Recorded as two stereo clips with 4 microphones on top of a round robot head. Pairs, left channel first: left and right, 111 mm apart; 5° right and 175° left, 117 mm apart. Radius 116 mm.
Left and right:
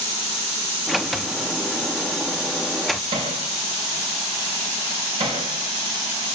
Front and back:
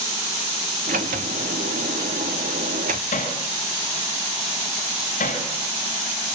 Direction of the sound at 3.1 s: 35° right.